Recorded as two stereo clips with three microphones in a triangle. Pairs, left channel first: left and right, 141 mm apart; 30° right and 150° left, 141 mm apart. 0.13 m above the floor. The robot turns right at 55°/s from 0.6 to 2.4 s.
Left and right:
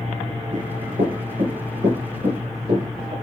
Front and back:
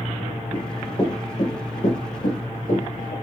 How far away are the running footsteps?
About 7 m.